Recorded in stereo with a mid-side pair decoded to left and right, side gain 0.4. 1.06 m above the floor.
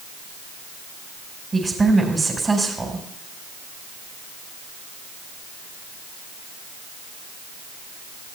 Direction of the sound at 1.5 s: 30° right.